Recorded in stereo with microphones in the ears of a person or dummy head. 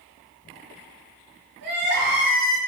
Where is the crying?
55° right (ahead or behind), 0.7 m.